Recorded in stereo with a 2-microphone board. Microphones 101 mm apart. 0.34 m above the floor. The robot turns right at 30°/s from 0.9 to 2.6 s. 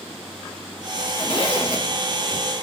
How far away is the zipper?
About 1.2 m.